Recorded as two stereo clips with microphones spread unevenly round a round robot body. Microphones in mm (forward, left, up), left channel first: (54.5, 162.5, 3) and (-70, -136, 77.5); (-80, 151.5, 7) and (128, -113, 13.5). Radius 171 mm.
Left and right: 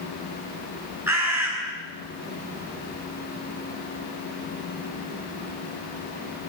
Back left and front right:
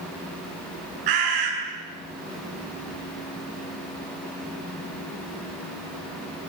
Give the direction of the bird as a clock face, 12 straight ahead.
1 o'clock.